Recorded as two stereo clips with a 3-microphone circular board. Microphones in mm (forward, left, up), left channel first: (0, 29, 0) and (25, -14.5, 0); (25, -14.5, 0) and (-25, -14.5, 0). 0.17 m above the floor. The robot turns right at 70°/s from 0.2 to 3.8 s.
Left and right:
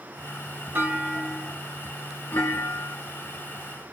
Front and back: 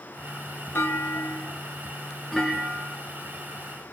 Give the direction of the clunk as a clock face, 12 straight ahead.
1 o'clock.